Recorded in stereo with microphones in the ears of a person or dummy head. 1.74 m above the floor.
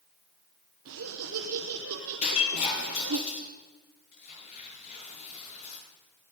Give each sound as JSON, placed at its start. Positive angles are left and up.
{"t": 0.8, "sound": "laughter", "side_deg": -60, "distance_m": 1.1}
{"t": 2.2, "sound": "breaking glass", "side_deg": 35, "distance_m": 7.0}
{"t": 4.1, "sound": "tearing paper", "side_deg": 35, "distance_m": 8.5}